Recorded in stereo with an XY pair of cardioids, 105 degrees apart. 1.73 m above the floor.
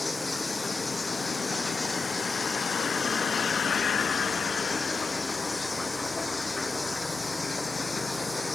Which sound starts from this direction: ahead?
Running water, at 0.0 s.